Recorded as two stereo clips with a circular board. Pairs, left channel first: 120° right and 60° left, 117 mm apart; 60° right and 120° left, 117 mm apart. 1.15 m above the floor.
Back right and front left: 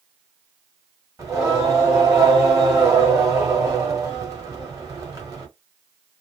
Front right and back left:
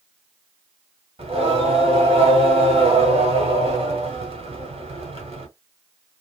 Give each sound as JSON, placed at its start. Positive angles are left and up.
{"t": 1.2, "sound": "singing", "azimuth_deg": 115, "distance_m": 1.5}